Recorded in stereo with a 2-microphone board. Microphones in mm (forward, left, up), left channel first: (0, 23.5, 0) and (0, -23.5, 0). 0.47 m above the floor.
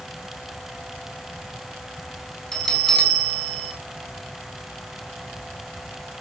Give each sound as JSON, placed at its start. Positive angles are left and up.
{"t": 2.5, "sound": "a bell", "side_deg": 10, "distance_m": 3.5}